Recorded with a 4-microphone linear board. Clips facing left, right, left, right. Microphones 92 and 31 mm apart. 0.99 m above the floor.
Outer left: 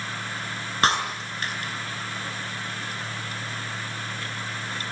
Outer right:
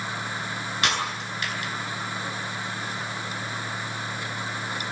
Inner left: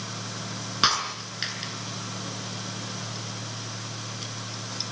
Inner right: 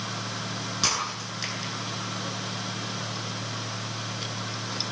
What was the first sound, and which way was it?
Breaking glass, 35° left (ahead or behind).